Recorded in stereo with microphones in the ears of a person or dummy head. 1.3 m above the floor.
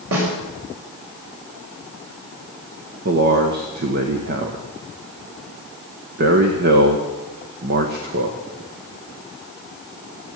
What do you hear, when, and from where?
0.1 s a snare drum: 85° right, 5.5 m
3.0 s a man speaking: 55° right (ahead or behind), 1.1 m